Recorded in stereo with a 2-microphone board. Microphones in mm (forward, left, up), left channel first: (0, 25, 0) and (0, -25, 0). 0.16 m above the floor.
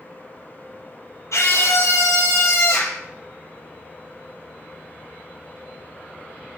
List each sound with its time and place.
1.3 s a scream: 75° left (ahead or behind), 4.5 m; by 3.0 s 65° left (ahead or behind), 5 m